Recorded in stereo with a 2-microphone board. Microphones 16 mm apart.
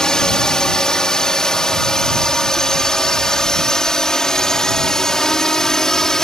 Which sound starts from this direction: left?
A drone, at 0.0 s.